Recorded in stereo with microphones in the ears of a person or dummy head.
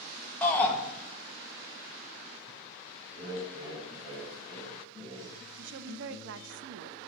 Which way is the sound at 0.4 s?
5° left (ahead or behind).